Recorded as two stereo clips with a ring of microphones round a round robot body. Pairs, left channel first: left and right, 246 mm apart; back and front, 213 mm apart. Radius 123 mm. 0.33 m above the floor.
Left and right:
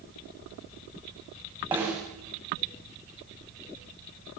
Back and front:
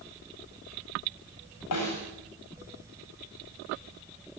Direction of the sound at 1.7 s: 175° right.